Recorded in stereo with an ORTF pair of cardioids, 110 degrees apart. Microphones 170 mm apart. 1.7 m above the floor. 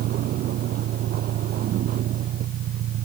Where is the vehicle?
65° right.